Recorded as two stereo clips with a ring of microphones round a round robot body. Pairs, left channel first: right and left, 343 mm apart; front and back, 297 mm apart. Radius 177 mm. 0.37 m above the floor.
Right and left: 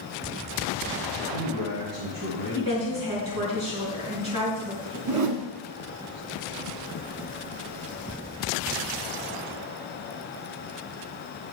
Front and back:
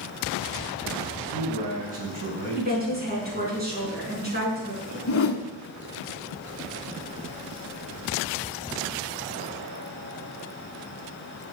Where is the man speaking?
120° left, 4 m.